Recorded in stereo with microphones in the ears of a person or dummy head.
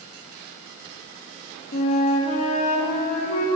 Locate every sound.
1.7 s a flute: 40° left (ahead or behind), 0.7 m